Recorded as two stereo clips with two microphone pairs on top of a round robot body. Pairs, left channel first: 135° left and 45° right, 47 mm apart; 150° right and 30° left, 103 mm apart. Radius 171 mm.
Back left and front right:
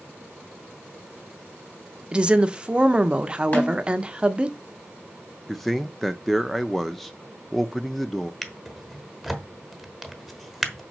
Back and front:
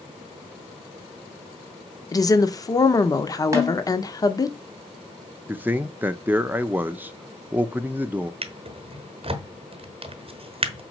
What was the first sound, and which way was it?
A woman speaking, 95° right.